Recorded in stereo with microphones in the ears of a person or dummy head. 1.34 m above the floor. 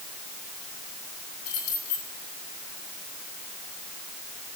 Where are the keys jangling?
85° left, 8.5 m.